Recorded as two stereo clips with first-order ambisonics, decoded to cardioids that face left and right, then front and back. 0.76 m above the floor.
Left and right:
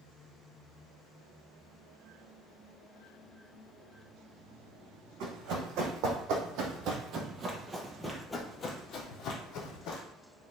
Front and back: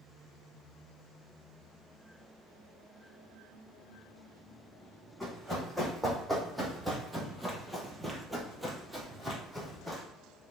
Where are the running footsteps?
95° right, 1.9 m; by 10.0 s 95° left, 1.4 m.